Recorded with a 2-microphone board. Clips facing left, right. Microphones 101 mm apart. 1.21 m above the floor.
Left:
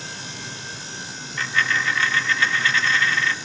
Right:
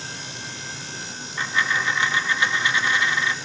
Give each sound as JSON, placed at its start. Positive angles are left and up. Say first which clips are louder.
{"t": 1.4, "sound": "a dropped coin", "louder": "left 1 dB", "side_deg": -15, "distance_m": 0.6}